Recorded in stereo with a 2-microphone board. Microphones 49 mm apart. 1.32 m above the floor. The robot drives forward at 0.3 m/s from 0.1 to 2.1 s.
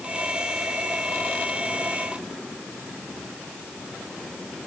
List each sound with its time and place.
Only background noise.